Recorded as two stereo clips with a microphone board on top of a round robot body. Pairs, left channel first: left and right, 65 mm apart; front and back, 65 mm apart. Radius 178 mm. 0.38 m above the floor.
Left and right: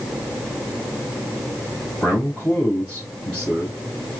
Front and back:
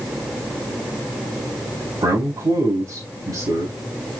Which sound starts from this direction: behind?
A man speaking, at 2.0 s.